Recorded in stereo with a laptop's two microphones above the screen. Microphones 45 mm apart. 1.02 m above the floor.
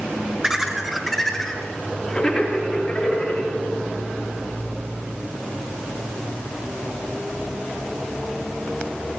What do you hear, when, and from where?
0.4 s laughter: 15° right (ahead or behind), 0.9 m; by 3.5 s 25° left (ahead or behind), 3 m